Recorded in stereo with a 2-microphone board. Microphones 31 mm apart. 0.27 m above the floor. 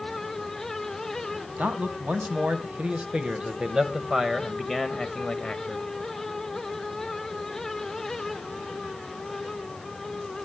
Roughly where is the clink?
I don't hear a clink.